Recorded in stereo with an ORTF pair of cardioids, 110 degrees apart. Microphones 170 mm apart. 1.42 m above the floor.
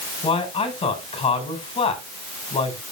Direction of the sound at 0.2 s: 30° left.